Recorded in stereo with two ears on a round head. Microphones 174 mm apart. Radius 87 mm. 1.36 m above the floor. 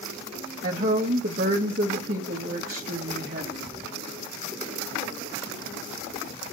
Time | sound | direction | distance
0.6 | a woman speaking | 45° right (ahead or behind) | 1.2 m